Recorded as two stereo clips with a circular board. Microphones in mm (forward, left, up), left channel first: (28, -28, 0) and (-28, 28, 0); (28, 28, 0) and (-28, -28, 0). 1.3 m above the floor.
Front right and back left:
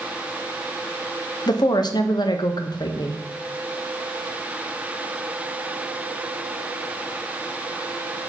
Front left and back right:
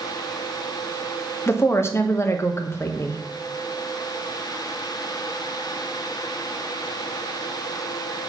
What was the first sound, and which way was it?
A woman speaking, 15° right.